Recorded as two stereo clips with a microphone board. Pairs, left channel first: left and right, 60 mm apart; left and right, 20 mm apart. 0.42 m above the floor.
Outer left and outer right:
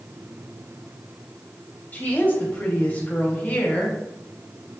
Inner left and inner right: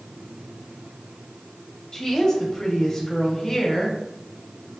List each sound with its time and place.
1.9 s a woman speaking: 30° left (ahead or behind), 2.5 m